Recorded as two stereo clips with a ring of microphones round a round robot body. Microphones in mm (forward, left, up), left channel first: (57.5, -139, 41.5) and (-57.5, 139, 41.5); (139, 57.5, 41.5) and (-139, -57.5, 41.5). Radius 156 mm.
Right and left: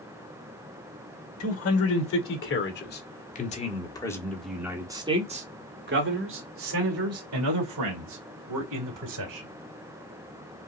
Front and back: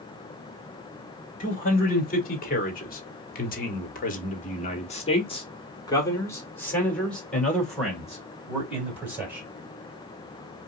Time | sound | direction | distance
1.4 | a man speaking | 35° right | 2 m